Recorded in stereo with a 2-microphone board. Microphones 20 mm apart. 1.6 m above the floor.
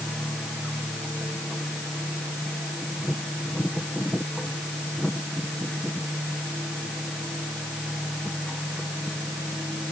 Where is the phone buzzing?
No phone buzzing in this recording.